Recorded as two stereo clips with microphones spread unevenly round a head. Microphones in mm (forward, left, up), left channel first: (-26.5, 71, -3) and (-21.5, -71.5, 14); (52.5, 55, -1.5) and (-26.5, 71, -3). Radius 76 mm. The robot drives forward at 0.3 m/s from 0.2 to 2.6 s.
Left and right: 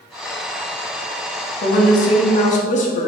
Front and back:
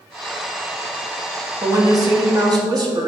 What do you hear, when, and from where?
1.6 s a woman speaking: 125° left, 1.8 m; by 3.1 s 130° left, 2 m